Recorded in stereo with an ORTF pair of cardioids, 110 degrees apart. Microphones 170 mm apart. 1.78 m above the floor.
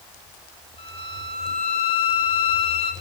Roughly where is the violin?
Ahead left.